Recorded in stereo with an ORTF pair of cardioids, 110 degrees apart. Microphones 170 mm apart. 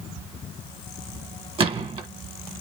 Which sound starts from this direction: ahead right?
A gunshot, at 1.6 s.